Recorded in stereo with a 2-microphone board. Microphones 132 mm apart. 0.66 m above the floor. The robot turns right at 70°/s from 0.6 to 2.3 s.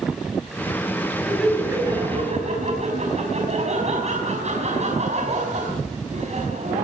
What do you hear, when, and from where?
1.2 s laughter: 165° left, 5 m; by 6.8 s 120° right, 5 m